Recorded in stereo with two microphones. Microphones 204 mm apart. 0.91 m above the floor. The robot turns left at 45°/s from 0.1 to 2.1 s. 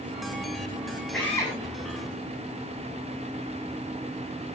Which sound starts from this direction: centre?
A drill, at 1.1 s.